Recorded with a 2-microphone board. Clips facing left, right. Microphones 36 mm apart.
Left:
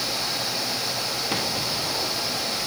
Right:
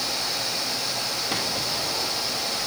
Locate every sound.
Only background noise.